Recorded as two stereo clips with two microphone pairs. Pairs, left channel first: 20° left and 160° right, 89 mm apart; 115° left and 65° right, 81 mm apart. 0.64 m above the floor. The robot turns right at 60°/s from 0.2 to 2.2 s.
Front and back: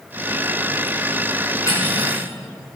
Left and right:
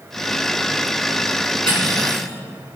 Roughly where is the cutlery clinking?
Ahead right.